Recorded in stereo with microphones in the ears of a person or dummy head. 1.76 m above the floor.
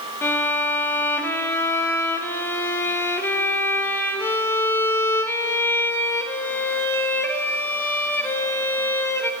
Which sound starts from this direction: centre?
A violin, at 0.2 s.